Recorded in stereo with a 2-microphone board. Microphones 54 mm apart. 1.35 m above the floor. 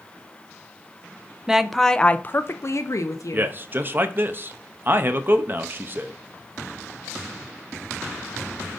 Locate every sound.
1.5 s a woman speaking: 10° right (ahead or behind), 0.5 m; by 3.5 s 75° left (ahead or behind), 0.9 m
3.3 s a man speaking: 35° right (ahead or behind), 0.7 m